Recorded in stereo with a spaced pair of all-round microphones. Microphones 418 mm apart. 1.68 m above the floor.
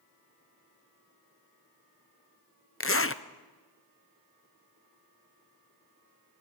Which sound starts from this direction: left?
A zipper, at 2.8 s.